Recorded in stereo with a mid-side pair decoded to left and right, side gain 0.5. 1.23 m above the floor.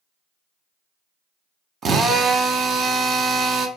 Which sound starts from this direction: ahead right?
A drill, at 1.8 s.